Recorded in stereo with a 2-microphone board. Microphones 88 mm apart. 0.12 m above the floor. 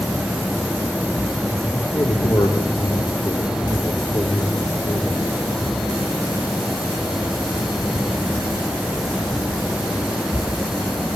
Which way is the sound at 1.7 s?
65° left (ahead or behind).